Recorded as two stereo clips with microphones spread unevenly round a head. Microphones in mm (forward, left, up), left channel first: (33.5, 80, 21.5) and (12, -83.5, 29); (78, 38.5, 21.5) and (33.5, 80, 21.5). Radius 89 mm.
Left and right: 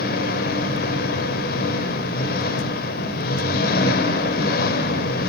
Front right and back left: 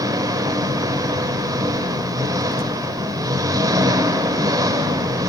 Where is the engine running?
125° left, 3 m.